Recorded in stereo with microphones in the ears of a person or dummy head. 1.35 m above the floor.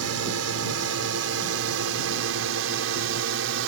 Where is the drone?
75° right (ahead or behind); by 3.7 s 65° right (ahead or behind).